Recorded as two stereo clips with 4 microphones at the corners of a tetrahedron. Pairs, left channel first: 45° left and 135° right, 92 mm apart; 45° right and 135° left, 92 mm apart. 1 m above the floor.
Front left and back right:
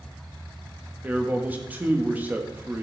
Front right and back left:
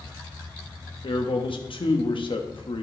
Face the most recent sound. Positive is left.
turn(degrees=-65)